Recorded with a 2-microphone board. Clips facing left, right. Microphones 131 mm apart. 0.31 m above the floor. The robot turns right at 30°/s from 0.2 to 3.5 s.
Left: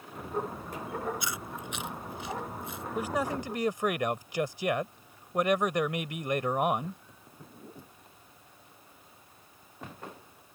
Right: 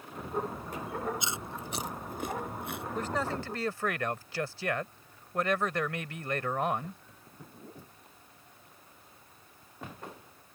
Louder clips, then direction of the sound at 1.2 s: Even; 20° right (ahead or behind).